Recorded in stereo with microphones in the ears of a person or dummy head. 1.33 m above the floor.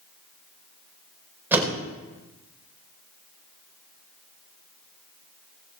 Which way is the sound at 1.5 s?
5° right (ahead or behind).